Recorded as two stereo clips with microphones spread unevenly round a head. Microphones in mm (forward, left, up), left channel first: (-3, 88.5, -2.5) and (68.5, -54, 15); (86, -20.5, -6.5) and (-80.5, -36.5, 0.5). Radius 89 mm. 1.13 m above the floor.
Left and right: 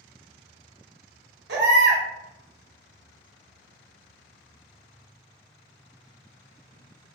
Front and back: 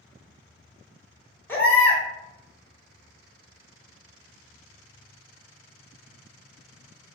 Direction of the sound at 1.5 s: 75° right.